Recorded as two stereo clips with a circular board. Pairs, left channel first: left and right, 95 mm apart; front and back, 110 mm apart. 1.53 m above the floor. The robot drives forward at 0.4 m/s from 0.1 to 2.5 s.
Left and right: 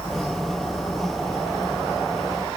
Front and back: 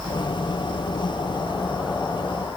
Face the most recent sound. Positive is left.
No sound to turn to.